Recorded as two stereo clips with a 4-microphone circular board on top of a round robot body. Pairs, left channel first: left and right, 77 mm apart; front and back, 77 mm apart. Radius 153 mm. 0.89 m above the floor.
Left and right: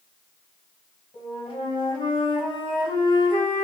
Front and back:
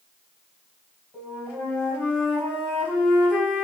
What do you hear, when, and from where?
1.1 s a flute: 70° left, 1.5 m